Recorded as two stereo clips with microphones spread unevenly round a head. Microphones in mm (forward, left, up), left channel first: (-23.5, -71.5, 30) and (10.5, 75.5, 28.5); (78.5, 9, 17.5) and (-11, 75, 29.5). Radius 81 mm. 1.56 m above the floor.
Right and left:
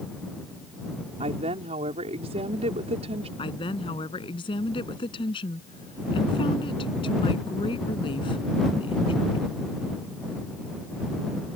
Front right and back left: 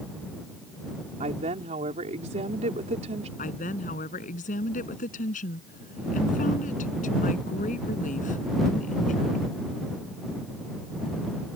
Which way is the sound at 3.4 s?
45° right.